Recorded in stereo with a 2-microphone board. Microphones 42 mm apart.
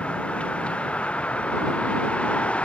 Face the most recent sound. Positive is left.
turn(degrees=25)  # may be behind; listen again after turning